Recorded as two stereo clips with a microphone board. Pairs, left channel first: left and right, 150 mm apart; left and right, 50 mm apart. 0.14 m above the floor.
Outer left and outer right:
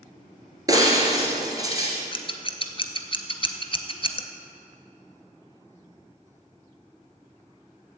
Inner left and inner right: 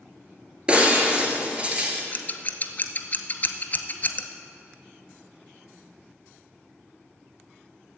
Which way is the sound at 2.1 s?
35° left (ahead or behind).